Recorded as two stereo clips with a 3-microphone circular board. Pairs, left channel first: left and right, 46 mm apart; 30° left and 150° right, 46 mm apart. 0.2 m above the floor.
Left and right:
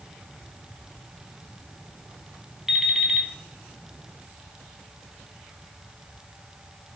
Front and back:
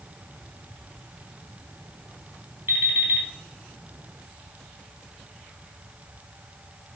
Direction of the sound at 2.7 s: 170° right.